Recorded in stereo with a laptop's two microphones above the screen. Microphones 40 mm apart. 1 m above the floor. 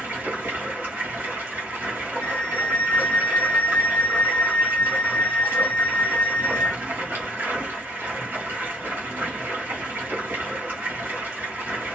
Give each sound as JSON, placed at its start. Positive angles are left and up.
{"t": 0.0, "sound": "running water", "side_deg": -70, "distance_m": 1.2}
{"t": 2.2, "sound": "a flute", "side_deg": 35, "distance_m": 1.0}